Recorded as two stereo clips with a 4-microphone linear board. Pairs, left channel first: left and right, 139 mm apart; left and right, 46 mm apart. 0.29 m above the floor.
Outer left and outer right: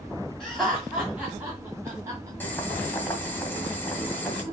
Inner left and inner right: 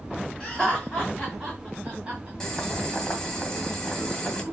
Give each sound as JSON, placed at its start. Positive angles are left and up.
{"t": 0.4, "sound": "laughter", "side_deg": 5, "distance_m": 2.5}
{"t": 2.4, "sound": "boiling", "side_deg": 15, "distance_m": 1.8}